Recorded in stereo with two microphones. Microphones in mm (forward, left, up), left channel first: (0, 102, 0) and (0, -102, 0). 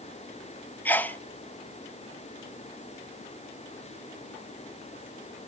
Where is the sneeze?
10° left (ahead or behind), 0.7 m.